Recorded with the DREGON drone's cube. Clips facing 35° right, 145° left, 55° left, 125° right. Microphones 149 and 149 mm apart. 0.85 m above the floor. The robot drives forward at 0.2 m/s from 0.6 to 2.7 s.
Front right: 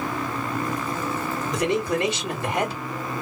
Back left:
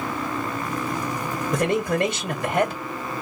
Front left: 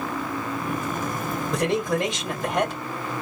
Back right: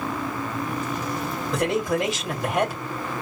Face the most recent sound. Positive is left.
turn(degrees=150)